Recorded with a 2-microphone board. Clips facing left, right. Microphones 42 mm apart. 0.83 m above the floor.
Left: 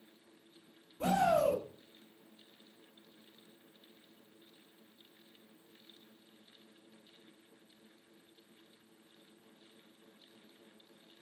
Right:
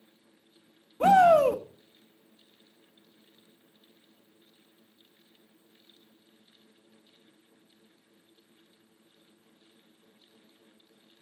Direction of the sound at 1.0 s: 60° right (ahead or behind).